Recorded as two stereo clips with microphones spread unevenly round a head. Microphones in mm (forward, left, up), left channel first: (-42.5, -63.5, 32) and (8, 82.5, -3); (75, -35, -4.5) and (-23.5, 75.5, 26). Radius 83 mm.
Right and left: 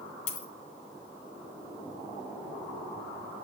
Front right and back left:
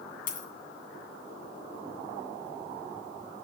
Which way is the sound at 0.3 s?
90° right.